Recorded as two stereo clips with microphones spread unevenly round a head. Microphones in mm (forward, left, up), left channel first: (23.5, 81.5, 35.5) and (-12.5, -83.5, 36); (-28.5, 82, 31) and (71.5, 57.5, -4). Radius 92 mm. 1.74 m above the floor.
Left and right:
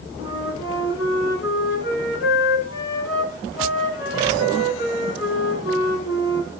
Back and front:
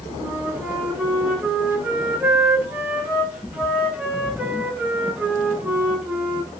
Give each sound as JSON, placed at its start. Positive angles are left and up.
{"t": 0.2, "sound": "a flute", "azimuth_deg": 65, "distance_m": 9.0}